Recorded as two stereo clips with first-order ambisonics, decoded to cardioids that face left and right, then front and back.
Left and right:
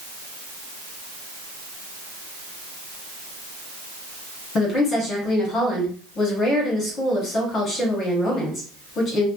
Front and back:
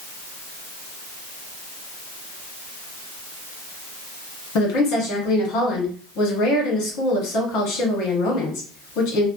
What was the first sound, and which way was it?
A woman speaking, 25° left.